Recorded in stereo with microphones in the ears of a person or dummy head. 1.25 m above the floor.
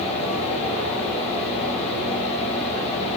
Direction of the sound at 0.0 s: 40° left (ahead or behind).